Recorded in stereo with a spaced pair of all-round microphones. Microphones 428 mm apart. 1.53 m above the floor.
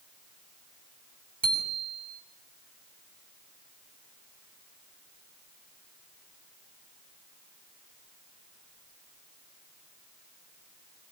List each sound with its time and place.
1.4 s a bicycle bell: 65° right (ahead or behind), 9.5 m